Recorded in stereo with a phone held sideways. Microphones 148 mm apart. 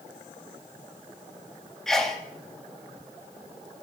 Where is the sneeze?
5° left (ahead or behind), 2 m.